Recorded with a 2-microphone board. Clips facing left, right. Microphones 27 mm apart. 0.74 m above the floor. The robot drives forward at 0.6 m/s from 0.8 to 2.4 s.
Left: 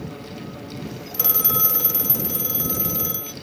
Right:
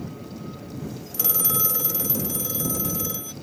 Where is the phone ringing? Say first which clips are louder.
Left 2 dB; 15° left (ahead or behind); by 3.3 s 5° left (ahead or behind).